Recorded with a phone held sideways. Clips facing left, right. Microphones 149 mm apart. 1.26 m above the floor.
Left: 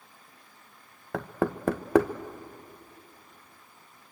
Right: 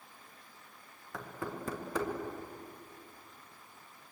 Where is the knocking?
70° left (ahead or behind), 1.0 m.